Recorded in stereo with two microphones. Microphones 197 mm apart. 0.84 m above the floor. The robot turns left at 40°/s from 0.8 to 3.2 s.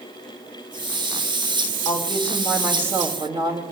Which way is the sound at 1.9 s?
25° left.